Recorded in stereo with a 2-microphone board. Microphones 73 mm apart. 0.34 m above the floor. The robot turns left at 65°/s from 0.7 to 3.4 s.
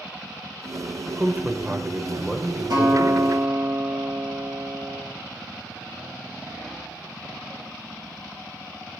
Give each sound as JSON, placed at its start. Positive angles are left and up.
{"t": 1.1, "sound": "a man speaking", "side_deg": -20, "distance_m": 0.9}
{"t": 2.7, "sound": "a guitar", "azimuth_deg": -90, "distance_m": 6.0}